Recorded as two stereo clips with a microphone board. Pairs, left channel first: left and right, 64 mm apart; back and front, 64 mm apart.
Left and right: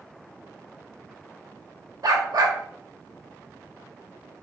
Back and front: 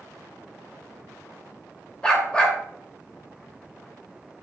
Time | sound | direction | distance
2.0 | a dog barking | 105° right | 0.9 m